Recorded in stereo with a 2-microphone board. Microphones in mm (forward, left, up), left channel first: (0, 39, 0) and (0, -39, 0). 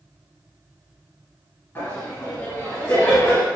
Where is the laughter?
30° left (ahead or behind), 1.1 m.